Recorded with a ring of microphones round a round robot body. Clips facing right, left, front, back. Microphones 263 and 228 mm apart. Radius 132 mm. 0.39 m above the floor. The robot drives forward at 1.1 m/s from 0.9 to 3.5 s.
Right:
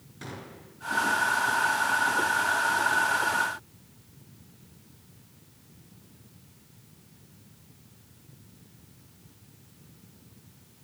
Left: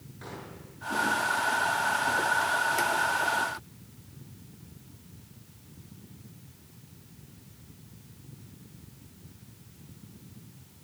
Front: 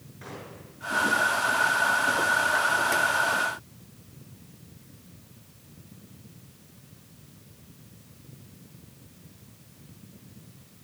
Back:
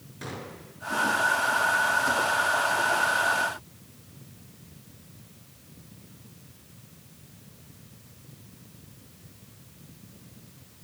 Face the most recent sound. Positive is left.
turn(degrees=-145)